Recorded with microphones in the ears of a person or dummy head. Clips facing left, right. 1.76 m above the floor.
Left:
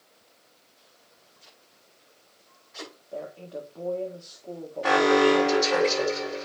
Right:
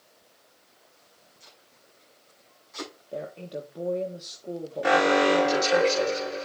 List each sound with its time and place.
1.4 s tape being pulled: 60° right (ahead or behind), 7 m
3.1 s a woman speaking: 30° right (ahead or behind), 1.4 m
4.8 s an alarm: 25° right (ahead or behind), 5 m